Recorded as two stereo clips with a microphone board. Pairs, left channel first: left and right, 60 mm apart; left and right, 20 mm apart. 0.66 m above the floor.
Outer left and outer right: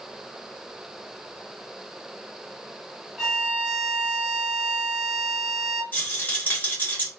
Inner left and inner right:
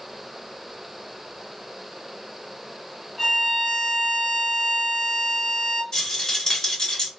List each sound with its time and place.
3.2 s a violin: 10° right (ahead or behind), 1.4 m
5.9 s a rattle: 30° left (ahead or behind), 1.4 m